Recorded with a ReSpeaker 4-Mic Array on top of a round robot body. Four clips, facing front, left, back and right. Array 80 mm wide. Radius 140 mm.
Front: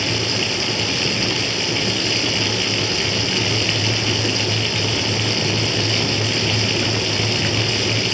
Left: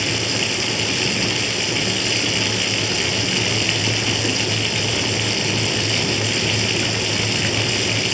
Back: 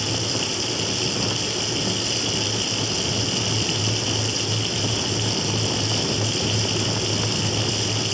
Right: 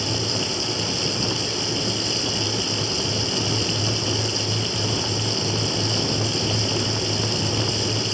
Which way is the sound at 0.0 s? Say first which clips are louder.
Left 3 dB, front 4 dB; 60° left.